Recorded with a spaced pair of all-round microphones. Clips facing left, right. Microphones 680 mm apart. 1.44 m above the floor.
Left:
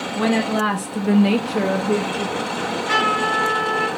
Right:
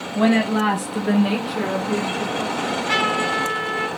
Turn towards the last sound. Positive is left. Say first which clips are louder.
# even
turn(degrees=10)  # may be behind; listen again after turning